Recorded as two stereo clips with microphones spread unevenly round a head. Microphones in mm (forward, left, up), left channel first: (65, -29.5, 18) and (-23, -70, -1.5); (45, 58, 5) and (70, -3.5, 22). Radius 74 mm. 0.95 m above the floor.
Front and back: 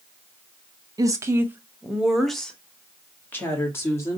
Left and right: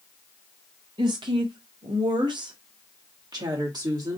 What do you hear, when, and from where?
1.0 s a woman speaking: 110° right, 0.9 m; by 4.2 s 40° right, 2.0 m